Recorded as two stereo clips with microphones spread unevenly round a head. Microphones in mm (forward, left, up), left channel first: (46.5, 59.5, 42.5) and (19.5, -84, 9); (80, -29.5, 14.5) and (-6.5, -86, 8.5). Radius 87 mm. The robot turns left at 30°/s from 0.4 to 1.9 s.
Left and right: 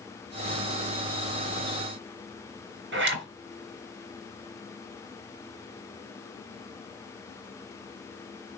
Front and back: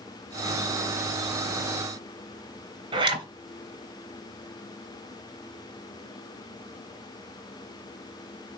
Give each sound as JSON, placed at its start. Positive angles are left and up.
{"t": 2.9, "sound": "a zipper", "azimuth_deg": -110, "distance_m": 3.5}